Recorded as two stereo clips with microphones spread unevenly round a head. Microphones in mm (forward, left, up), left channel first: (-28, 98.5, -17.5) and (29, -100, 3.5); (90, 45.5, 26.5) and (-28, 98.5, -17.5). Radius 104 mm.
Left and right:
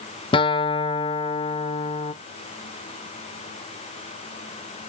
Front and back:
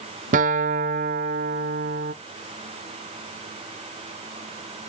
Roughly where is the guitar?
Behind.